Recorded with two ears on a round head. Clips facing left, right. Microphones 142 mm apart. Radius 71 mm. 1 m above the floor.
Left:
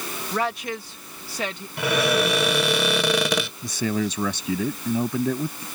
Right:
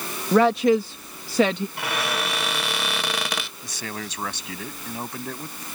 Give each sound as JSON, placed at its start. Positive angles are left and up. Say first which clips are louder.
{"t": 0.3, "sound": "a woman speaking", "louder": "right 11 dB", "side_deg": -50}
{"t": 1.8, "sound": "a cupboard door", "louder": "left 6 dB", "side_deg": 85}
{"t": 3.6, "sound": "a man speaking", "louder": "left 10 dB", "side_deg": 80}